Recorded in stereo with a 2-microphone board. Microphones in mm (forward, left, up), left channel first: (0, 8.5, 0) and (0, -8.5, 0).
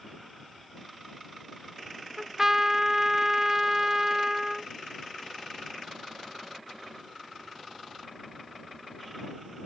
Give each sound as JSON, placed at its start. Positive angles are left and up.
{"t": 2.2, "sound": "a trumpet", "side_deg": -25}